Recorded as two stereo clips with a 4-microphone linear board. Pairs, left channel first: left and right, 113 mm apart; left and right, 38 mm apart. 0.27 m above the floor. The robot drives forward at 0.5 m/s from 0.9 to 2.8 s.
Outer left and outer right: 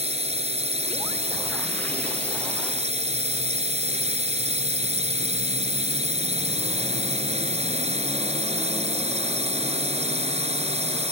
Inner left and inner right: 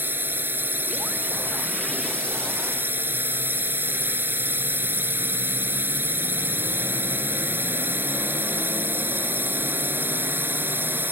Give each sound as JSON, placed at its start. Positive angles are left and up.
{"t": 0.0, "sound": "a drone", "side_deg": -70}